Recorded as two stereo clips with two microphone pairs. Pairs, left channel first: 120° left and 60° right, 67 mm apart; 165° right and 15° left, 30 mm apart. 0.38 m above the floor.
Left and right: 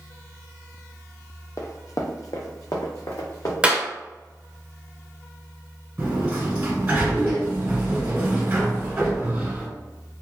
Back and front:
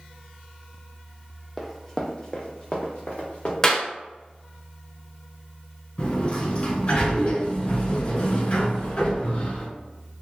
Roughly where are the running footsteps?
Left.